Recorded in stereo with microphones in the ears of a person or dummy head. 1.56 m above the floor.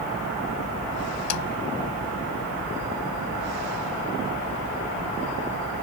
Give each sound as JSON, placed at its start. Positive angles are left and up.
{"t": 1.3, "sound": "a snare drum", "side_deg": 85}